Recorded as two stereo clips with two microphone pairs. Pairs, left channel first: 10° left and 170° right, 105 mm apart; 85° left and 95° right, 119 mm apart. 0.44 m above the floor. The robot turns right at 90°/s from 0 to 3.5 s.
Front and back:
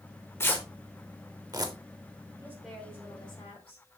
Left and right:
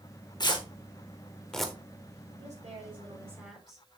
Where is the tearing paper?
65° left, 1.4 m; by 1.7 s 175° right, 1.4 m.